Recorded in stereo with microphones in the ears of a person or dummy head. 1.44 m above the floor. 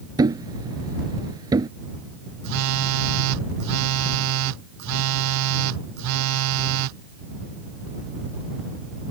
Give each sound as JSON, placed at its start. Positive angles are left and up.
{"t": 0.2, "sound": "a thud", "side_deg": -15}
{"t": 2.4, "sound": "a phone buzzing", "side_deg": -75}